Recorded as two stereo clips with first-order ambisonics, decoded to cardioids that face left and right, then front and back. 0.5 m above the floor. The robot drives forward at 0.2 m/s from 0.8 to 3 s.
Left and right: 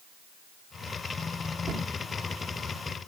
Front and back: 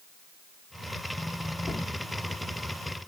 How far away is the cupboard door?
About 0.6 m.